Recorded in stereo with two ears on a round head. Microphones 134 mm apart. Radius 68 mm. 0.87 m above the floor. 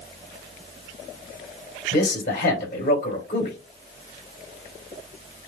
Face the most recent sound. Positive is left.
turn(degrees=60)  # may be behind; listen again after turning